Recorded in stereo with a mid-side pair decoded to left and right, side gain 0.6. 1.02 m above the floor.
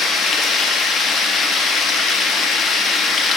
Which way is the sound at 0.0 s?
40° left.